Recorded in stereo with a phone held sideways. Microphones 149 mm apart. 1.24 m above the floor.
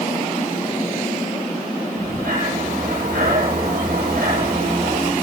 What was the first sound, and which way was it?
Breathing, 85° right.